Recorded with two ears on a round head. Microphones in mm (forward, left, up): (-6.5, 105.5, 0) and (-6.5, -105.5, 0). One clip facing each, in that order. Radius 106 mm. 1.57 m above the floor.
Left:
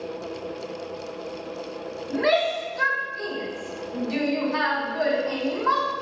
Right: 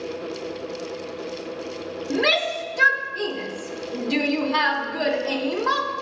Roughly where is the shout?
Right.